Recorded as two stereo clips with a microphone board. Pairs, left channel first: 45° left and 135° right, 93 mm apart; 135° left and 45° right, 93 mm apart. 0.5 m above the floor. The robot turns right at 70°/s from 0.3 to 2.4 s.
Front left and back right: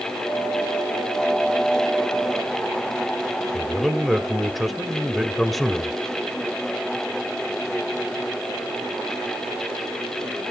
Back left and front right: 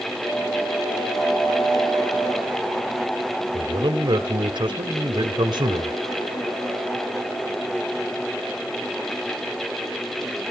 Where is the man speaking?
45° right, 2 m.